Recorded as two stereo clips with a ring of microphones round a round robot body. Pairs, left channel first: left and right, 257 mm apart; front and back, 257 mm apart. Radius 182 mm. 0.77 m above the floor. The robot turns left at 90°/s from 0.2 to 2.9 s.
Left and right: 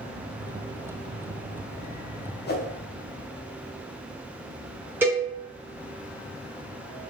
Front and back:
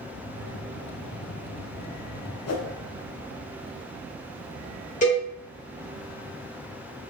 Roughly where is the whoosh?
Ahead left.